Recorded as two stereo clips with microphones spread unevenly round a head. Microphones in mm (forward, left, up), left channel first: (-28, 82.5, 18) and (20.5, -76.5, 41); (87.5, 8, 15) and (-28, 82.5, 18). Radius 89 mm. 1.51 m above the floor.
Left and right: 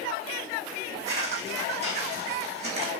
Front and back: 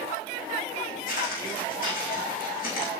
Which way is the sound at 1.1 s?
25° right.